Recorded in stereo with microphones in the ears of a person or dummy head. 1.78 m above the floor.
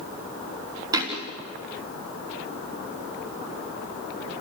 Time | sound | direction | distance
0.9 | a thud | 20° right (ahead or behind) | 3 m